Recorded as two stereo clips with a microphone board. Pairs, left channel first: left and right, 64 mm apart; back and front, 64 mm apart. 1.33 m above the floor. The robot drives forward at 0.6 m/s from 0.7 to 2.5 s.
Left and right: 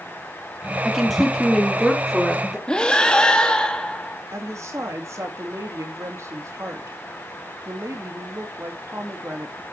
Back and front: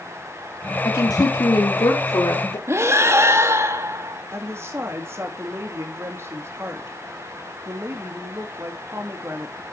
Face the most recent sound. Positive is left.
turn(degrees=-50)